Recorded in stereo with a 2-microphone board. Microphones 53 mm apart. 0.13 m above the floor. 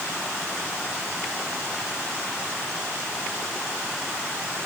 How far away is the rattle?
I don't hear a rattle.